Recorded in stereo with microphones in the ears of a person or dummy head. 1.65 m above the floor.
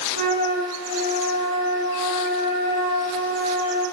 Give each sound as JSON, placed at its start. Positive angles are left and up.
{"t": 0.1, "sound": "a flute", "side_deg": -70, "distance_m": 1.3}